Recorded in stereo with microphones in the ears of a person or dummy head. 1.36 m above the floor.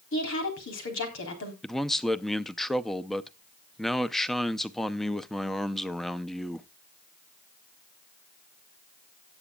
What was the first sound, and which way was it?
A woman speaking, 65° left (ahead or behind).